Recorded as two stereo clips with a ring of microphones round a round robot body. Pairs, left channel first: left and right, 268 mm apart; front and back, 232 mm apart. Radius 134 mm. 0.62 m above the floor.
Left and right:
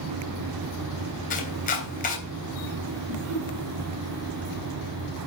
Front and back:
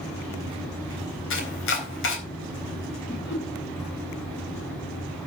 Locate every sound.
1.3 s chopping: 30° left, 4 m
3.1 s laughter: 55° right, 5 m